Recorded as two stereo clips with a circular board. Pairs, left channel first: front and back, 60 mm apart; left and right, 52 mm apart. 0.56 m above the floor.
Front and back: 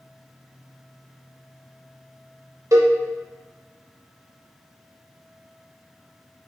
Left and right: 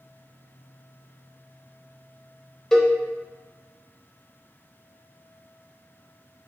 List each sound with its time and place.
2.7 s a cowbell: 175° left, 0.6 m